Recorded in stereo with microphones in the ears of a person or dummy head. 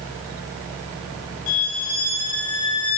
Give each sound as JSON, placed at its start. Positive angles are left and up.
{"t": 1.5, "sound": "a violin", "side_deg": 60, "distance_m": 2.0}